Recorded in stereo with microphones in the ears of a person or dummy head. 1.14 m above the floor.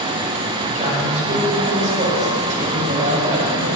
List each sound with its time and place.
0.7 s a man speaking: 35° right (ahead or behind), 5.5 m